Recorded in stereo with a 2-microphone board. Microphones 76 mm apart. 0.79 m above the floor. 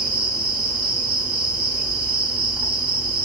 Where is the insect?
15° right (ahead or behind), 0.9 m.